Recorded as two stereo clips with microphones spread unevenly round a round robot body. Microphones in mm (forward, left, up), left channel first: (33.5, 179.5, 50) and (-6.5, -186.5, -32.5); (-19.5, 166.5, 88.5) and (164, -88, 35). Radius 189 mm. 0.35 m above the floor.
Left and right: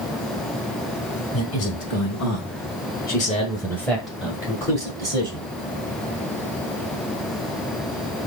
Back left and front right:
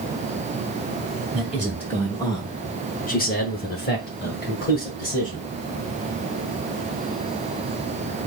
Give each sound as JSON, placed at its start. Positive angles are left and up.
{"t": 1.3, "sound": "a man speaking", "azimuth_deg": 30, "distance_m": 1.6}